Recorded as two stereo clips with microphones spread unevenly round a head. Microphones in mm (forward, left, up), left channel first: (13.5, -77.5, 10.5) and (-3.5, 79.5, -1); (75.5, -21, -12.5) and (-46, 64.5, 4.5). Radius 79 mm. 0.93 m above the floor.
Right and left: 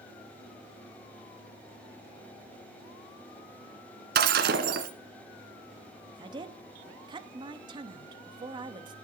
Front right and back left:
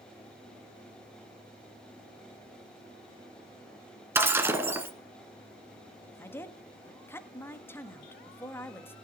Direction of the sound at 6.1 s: 35° left.